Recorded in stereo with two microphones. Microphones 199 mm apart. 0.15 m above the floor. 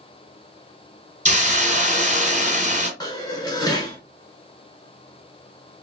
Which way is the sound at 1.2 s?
40° right (ahead or behind).